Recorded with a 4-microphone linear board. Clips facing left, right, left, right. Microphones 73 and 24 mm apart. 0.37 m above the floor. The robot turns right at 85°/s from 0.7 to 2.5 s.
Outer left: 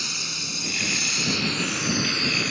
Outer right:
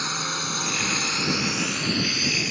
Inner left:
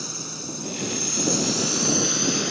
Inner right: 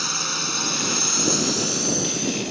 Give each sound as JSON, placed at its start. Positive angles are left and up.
{"t": 0.0, "sound": "a drone", "side_deg": -45}